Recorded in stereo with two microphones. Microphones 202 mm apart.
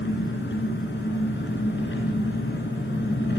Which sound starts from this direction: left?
An engine running, at 0.0 s.